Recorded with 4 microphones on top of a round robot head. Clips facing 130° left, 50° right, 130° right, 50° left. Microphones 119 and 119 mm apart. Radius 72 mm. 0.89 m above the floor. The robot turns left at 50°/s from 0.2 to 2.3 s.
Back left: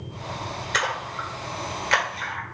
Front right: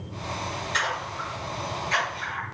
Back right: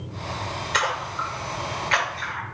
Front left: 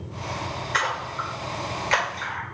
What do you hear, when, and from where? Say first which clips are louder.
0.7 s a splash: back left 4 dB, back right 2 dB; 165° left, 1.6 m; by 2.4 s 85° left, 1.6 m